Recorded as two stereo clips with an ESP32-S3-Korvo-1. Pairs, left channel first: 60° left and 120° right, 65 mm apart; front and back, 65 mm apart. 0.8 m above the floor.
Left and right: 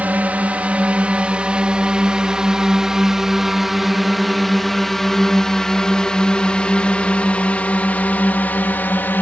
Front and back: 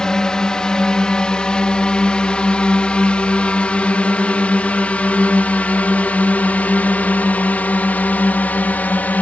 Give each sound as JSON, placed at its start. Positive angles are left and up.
{"t": 0.0, "sound": "a drone", "azimuth_deg": -70}